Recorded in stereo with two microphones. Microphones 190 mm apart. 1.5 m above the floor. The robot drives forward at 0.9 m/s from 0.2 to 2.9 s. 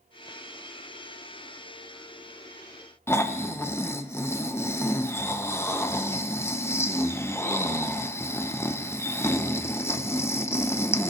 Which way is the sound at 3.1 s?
15° left (ahead or behind).